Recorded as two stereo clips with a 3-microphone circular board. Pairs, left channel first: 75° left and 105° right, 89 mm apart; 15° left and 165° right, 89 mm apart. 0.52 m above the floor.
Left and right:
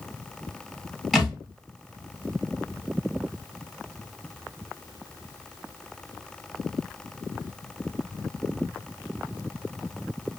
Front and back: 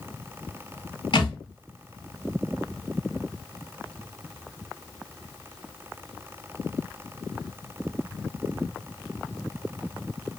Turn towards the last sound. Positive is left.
turn(degrees=-15)